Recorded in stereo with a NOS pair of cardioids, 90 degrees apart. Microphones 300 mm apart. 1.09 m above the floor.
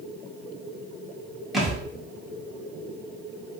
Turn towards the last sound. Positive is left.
turn(degrees=0)